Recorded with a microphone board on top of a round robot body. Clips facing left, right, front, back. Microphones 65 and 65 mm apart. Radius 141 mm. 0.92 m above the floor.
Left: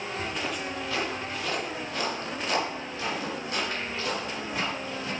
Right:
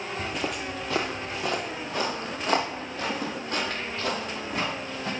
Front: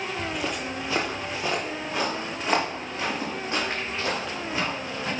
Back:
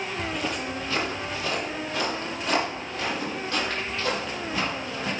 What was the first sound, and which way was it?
Footsteps, 80° right.